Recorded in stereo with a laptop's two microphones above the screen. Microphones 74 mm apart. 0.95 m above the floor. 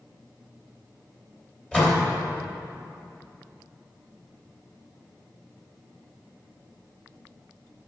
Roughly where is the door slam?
Centre.